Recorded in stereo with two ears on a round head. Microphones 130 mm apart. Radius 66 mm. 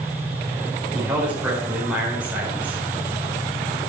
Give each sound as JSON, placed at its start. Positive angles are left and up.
{"t": 0.9, "sound": "a man speaking", "side_deg": -10, "distance_m": 4.5}